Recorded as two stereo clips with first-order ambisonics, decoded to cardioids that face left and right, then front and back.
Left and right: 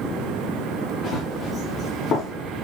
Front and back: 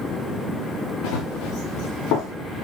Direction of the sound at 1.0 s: 25° left.